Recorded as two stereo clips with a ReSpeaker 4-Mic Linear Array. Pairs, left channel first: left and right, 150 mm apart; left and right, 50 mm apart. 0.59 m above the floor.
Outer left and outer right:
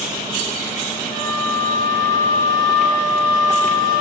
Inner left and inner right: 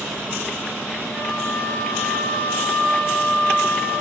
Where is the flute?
35° left (ahead or behind), 1.8 m.